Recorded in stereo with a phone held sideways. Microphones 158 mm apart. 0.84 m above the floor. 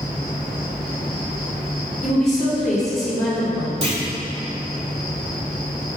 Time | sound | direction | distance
0.0 | an insect | 70° right (ahead or behind) | 2.5 m
2.0 | a woman speaking | centre (ahead or behind) | 3 m
3.8 | a clunk | 40° right (ahead or behind) | 1.8 m